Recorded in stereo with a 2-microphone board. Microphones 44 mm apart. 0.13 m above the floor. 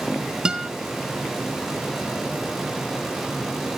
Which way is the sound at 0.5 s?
20° right (ahead or behind).